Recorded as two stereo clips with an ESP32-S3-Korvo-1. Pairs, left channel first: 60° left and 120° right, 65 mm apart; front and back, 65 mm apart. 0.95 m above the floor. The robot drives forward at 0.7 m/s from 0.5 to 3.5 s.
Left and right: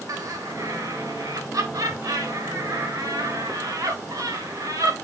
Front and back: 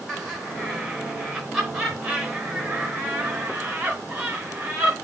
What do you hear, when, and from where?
0.1 s laughter: 90° right, 5 m; by 5.0 s 110° right, 5.5 m